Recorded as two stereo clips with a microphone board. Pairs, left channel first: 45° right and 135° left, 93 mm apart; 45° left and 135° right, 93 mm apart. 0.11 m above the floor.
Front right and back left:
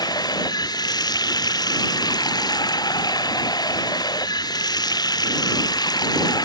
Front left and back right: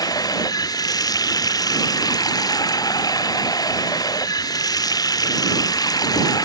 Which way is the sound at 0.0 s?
Straight ahead.